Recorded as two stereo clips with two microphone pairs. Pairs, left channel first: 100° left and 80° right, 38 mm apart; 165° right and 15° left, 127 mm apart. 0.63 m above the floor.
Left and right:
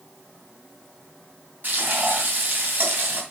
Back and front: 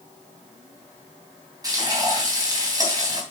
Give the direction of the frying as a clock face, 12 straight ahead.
2 o'clock.